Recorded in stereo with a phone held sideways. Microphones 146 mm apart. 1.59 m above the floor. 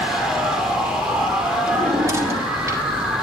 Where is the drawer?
20° right (ahead or behind), 2 m.